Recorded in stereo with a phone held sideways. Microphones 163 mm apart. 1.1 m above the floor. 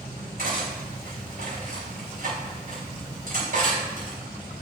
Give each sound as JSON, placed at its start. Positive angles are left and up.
{"t": 0.4, "sound": "cutlery clinking", "side_deg": -65, "distance_m": 4.0}